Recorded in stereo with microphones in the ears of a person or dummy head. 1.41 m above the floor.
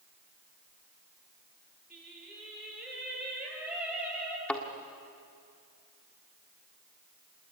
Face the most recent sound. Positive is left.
turn(degrees=0)  # may be behind; listen again after turning